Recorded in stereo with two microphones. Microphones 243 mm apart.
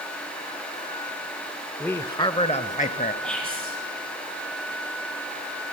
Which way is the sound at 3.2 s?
5° left (ahead or behind).